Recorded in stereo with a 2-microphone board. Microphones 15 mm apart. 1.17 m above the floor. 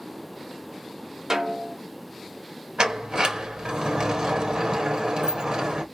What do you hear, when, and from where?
1.3 s a snare drum: 40° right (ahead or behind), 0.8 m
2.8 s a sliding door: 60° right (ahead or behind), 0.9 m